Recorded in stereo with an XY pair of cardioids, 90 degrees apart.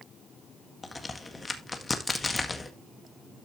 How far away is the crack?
About 1.7 m.